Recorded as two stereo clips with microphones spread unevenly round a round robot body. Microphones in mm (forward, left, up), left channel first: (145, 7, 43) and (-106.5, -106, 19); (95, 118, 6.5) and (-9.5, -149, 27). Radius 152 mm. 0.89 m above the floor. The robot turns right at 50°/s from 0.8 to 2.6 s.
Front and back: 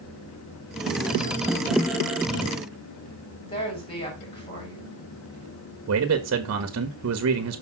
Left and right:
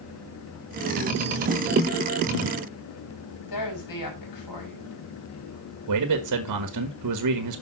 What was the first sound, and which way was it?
A woman speaking, 100° left.